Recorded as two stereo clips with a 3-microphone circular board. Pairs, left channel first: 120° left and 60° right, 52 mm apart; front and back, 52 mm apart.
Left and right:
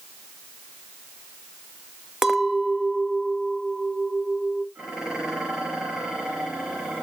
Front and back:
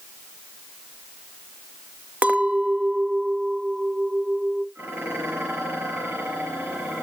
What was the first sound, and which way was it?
A clink, 135° right.